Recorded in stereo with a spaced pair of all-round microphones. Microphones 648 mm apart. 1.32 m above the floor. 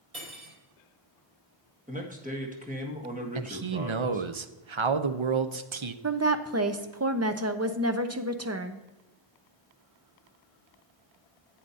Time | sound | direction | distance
0.1 | cutlery clinking | 60° right (ahead or behind) | 4 m
1.9 | a man speaking | 10° right (ahead or behind) | 1.7 m
3.4 | a man speaking | 50° right (ahead or behind) | 0.7 m
6.0 | a woman speaking | 25° right (ahead or behind) | 0.7 m